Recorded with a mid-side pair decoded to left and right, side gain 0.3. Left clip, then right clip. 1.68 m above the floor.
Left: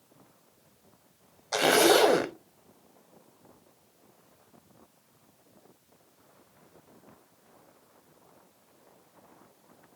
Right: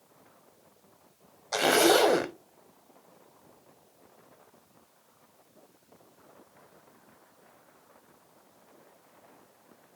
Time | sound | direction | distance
1.5 | a zipper | 10° left | 0.6 m